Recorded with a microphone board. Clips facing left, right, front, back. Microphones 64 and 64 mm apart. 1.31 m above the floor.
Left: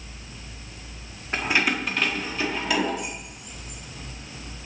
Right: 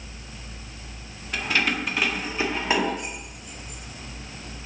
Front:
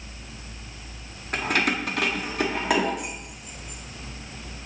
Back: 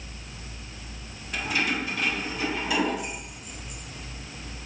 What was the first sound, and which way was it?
Keys jangling, 35° left.